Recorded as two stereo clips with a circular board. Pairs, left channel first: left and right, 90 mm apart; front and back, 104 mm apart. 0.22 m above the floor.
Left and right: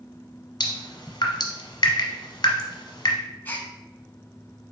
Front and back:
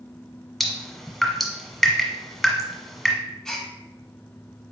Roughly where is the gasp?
Left.